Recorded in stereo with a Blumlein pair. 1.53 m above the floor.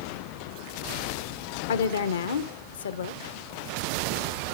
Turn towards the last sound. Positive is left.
turn(degrees=65)